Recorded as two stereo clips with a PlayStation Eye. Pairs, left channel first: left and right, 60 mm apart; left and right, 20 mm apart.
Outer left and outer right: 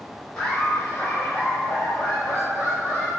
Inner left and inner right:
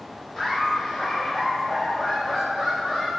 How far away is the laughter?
About 1.3 m.